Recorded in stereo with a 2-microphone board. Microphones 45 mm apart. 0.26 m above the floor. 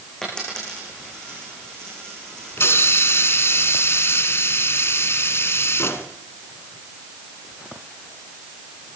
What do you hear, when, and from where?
0.2 s a dropped coin: 15° left (ahead or behind), 7 m
2.6 s a hiss: 65° left (ahead or behind), 1.3 m